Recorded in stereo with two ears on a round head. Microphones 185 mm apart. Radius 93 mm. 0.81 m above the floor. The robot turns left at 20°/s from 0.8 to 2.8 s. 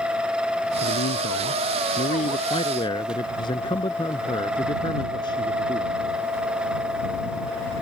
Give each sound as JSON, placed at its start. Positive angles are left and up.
{"t": 0.8, "sound": "a man speaking", "azimuth_deg": 60}